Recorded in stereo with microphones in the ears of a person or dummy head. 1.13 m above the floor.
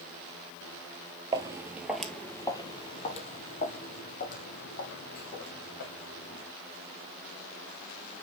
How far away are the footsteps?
About 1.5 m.